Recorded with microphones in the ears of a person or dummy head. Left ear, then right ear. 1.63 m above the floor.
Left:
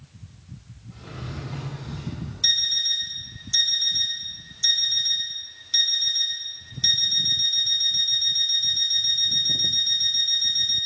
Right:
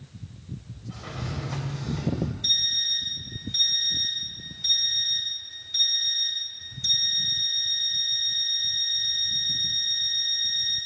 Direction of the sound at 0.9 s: 60° right (ahead or behind).